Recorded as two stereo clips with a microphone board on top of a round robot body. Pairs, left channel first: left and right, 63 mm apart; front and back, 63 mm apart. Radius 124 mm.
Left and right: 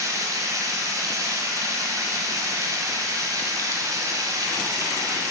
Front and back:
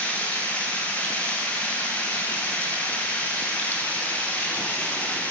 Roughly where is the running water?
Right.